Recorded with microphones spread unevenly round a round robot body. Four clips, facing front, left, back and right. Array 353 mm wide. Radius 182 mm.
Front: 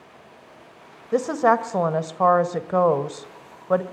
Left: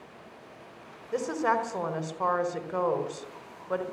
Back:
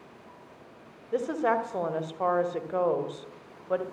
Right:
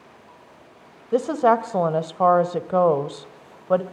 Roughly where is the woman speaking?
Ahead right.